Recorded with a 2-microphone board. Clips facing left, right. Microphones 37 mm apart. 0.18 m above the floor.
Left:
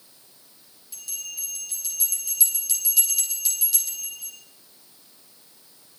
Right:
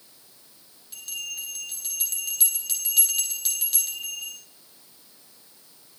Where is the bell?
45° right (ahead or behind), 2.5 m.